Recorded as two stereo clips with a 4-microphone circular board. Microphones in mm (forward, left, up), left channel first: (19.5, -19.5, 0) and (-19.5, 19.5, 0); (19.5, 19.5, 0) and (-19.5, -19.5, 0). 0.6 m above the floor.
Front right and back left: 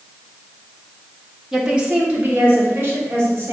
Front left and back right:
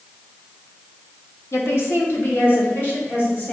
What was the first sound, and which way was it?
A woman speaking, 50° left.